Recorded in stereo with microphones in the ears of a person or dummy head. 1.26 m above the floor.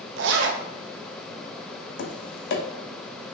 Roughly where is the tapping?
Left.